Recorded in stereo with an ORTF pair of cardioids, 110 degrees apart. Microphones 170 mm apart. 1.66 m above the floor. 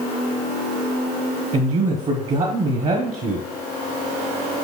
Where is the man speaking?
45° right, 1.2 m.